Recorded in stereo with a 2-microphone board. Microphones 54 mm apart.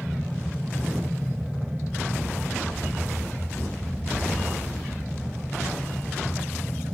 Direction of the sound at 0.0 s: 15° right (ahead or behind).